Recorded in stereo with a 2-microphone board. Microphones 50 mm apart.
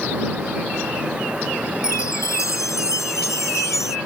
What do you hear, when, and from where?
1.8 s a chime: 80° left